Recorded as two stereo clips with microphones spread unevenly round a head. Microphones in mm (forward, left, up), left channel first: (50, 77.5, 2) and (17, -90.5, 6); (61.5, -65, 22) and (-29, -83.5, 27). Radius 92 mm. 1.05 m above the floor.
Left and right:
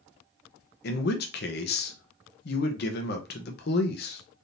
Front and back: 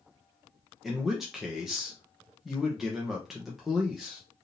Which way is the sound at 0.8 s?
100° left.